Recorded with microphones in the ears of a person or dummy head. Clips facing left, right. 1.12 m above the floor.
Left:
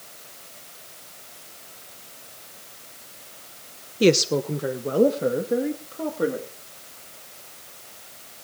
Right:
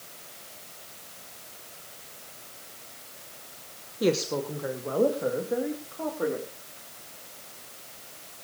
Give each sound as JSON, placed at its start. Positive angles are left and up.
{"t": 4.0, "sound": "a woman speaking", "side_deg": 30, "distance_m": 0.8}